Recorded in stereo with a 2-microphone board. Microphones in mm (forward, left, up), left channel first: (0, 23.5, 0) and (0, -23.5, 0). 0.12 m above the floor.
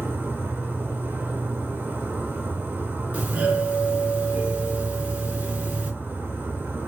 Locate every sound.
0.0 s an insect: 40° right (ahead or behind), 1.7 m
3.1 s a doorbell: 30° right (ahead or behind), 2.5 m